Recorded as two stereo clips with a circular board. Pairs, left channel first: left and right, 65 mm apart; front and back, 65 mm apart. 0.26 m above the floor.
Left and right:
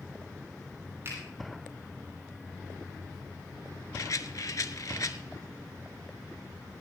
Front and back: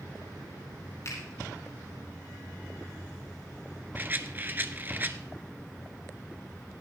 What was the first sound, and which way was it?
A finger snap, 40° right.